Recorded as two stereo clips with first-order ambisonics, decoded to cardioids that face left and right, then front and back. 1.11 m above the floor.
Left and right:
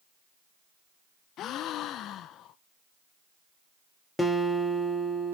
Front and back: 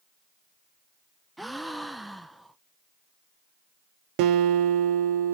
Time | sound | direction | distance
1.4 | a gasp | 95° left | 0.6 m
4.2 | a guitar | 170° left | 1.2 m